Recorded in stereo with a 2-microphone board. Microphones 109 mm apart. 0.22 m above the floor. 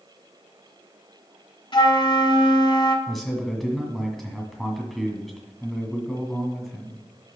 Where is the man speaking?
Centre (ahead or behind), 1.9 m.